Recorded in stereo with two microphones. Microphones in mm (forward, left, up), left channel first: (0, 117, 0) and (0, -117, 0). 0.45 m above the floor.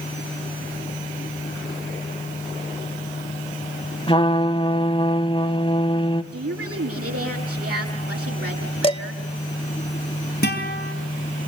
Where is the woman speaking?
80° right, 7 m.